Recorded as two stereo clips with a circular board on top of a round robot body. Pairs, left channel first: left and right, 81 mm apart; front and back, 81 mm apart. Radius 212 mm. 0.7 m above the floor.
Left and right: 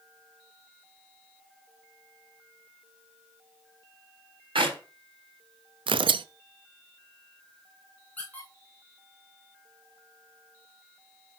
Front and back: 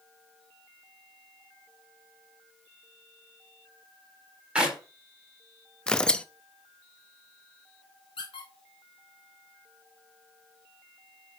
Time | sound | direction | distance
4.5 | a clap | 105° right | 4 m
5.9 | tearing paper | 80° right | 0.5 m
8.2 | a squeak | 15° left | 1.0 m